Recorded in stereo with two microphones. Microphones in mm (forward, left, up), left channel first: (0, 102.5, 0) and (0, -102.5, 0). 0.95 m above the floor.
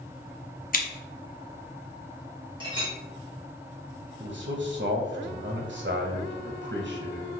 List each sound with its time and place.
0.7 s scissors: 45° left (ahead or behind), 0.7 m
2.6 s a clink: 25° right (ahead or behind), 1.5 m
4.2 s a man speaking: 60° right (ahead or behind), 0.6 m